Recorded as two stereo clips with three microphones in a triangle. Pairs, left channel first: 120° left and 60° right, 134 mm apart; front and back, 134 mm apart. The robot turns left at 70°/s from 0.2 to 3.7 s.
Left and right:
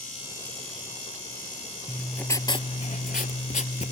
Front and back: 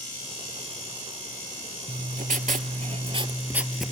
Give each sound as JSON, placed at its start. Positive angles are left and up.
{"t": 1.9, "sound": "writing", "azimuth_deg": -140, "distance_m": 0.5}